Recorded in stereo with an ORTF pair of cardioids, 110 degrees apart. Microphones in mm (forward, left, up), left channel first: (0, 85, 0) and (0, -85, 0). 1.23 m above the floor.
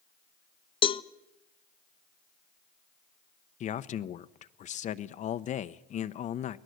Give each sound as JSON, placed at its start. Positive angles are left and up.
{"t": 0.8, "sound": "a cowbell", "azimuth_deg": 30, "distance_m": 0.8}
{"t": 3.6, "sound": "a man speaking", "azimuth_deg": 50, "distance_m": 0.8}